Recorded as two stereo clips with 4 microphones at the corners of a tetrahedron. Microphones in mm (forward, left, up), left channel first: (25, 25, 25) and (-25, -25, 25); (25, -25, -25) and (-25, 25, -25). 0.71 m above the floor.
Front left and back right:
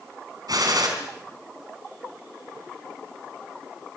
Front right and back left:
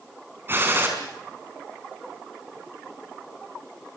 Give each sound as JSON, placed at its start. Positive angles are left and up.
{"t": 0.5, "sound": "a gunshot", "azimuth_deg": -165, "distance_m": 4.0}